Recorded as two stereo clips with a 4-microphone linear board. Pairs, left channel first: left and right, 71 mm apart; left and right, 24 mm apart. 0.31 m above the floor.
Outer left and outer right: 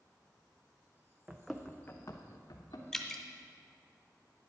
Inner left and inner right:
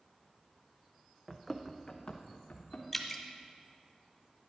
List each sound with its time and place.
1.3 s running footsteps: 20° right (ahead or behind), 0.9 m; by 2.8 s 65° left (ahead or behind), 1.9 m
2.9 s dripping: 5° left (ahead or behind), 0.9 m